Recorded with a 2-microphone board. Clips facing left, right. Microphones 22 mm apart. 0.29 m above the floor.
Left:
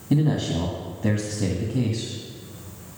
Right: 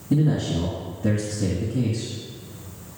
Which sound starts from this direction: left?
A man speaking, at 0.1 s.